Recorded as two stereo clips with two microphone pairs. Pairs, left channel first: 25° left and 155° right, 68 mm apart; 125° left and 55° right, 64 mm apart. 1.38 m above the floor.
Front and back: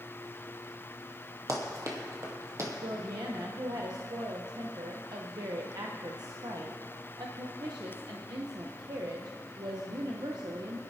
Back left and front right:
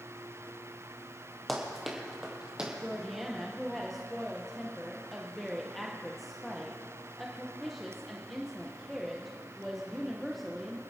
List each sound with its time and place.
1.5 s running footsteps: 145° right, 2 m; by 2.7 s 125° right, 2 m
2.8 s a woman speaking: 145° right, 0.8 m